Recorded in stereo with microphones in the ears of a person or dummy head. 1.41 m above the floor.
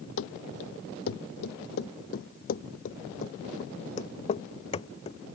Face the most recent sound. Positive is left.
turn(degrees=30)  # may be behind; listen again after turning